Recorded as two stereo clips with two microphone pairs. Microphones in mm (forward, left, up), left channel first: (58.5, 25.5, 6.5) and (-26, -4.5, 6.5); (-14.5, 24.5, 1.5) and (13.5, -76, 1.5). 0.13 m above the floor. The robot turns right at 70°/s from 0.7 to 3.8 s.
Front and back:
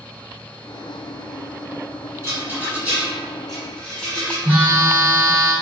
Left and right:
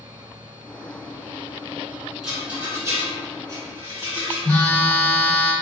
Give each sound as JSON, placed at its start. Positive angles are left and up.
{"t": 2.2, "sound": "a rattle", "azimuth_deg": -155, "distance_m": 1.8}
{"t": 4.5, "sound": "a phone buzzing", "azimuth_deg": 155, "distance_m": 1.5}